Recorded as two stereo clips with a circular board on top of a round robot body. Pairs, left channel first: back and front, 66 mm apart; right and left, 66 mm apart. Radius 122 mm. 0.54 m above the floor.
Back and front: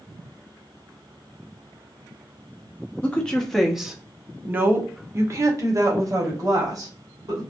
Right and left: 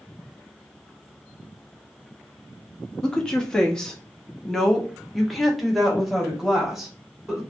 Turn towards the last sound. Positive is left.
turn(degrees=5)